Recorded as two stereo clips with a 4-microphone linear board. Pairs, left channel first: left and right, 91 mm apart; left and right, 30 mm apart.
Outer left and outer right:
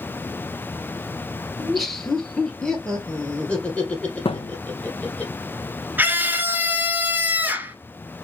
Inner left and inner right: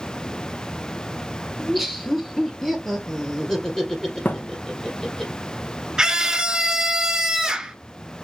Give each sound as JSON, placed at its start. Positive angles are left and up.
{"t": 1.6, "sound": "laughter", "side_deg": 0, "distance_m": 1.5}
{"t": 4.2, "sound": "a thud", "side_deg": 75, "distance_m": 0.7}
{"t": 6.0, "sound": "a scream", "side_deg": -20, "distance_m": 1.4}